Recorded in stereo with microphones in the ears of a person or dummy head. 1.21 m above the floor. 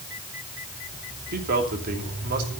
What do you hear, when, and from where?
1.3 s a man speaking: 50° right (ahead or behind), 2.5 m